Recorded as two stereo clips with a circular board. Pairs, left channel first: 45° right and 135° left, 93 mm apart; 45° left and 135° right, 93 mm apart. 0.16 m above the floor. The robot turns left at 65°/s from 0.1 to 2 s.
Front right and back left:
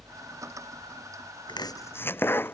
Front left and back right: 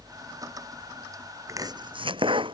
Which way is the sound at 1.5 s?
80° right.